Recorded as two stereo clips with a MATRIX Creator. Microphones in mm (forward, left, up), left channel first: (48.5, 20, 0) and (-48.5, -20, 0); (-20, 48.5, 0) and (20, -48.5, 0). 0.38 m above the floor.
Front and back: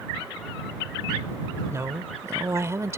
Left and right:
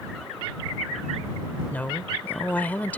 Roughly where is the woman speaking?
Behind.